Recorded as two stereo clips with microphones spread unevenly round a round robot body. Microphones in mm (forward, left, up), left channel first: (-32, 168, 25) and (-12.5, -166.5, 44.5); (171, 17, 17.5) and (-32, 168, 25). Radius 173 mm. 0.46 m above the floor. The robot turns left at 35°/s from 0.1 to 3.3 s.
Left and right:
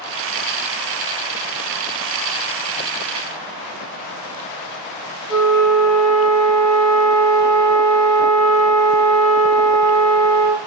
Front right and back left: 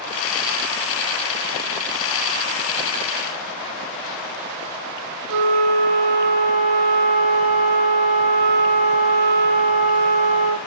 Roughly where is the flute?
Behind left.